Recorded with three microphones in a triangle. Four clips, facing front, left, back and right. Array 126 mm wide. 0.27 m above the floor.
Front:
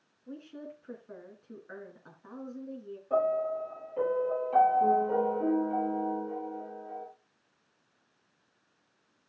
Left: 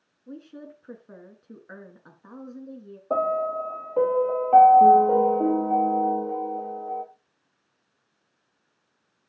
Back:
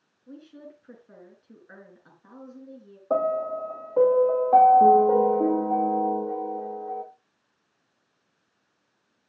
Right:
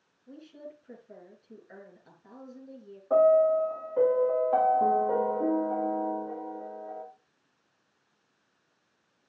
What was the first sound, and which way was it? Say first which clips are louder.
A woman speaking: left 4 dB, front 1 dB; 85° left.